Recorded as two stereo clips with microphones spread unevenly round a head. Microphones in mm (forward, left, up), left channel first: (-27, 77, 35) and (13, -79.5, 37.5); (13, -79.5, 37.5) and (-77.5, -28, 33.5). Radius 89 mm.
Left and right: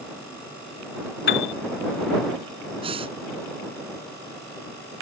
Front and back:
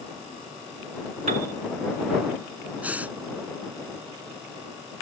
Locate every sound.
1.3 s a piano: 120° left
2.8 s breathing: 135° right